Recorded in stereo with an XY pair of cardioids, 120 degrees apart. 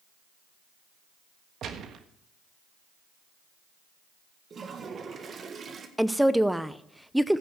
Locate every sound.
1.6 s a gunshot: 55° right, 1.3 m
4.5 s a toilet flushing: 40° right, 1.6 m
6.0 s a woman speaking: 5° right, 0.7 m